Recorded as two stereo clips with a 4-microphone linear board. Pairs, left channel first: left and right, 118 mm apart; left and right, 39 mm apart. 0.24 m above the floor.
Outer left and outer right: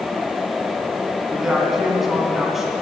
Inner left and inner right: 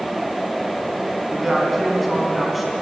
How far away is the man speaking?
About 2.5 m.